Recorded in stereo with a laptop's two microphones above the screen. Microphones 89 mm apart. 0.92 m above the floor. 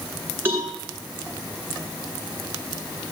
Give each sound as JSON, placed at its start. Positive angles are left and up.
{"t": 0.5, "sound": "a cowbell", "side_deg": -25, "distance_m": 6.0}